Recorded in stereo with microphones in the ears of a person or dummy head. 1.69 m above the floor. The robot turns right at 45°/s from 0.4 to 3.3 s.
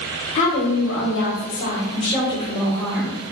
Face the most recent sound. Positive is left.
turn(degrees=-160)